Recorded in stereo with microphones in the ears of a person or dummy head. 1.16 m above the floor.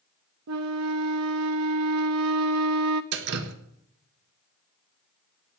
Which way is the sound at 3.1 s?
60° right (ahead or behind).